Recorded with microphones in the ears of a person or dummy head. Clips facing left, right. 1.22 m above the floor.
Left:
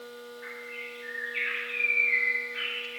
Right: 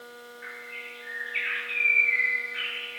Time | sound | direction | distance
0.4 | a bird | 35° right (ahead or behind) | 1.9 m